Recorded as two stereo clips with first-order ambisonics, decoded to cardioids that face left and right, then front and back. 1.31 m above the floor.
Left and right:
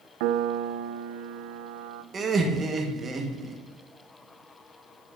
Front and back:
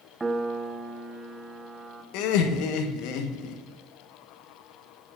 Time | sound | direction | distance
0.2 | a piano | 100° right | 0.5 m
2.1 | laughter | 20° right | 1.4 m